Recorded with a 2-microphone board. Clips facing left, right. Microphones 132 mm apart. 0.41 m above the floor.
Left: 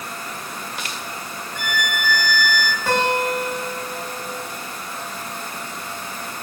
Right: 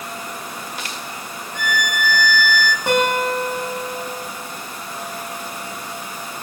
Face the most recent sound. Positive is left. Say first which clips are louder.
# right 1 dB
turn(degrees=-20)  # may be behind; listen again after turning